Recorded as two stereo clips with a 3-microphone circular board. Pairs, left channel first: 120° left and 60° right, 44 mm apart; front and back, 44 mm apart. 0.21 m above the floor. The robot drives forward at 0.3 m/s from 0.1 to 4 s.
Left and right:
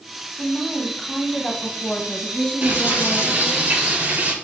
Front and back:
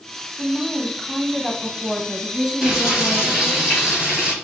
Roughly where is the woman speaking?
Ahead left.